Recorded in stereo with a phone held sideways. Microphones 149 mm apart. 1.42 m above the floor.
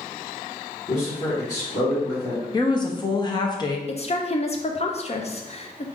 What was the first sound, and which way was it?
A man speaking, 40° left (ahead or behind).